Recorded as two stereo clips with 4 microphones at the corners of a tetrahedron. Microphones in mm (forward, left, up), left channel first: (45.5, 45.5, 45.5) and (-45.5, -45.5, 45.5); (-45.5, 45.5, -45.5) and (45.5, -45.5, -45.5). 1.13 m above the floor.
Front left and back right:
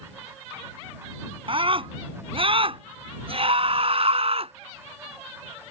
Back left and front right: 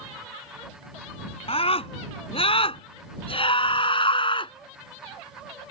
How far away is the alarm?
I don't hear an alarm.